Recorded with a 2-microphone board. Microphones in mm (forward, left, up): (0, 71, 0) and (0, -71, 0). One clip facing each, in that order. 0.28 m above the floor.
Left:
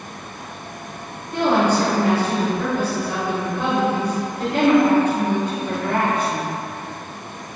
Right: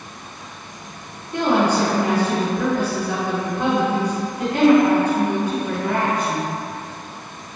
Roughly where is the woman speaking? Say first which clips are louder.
Even; centre.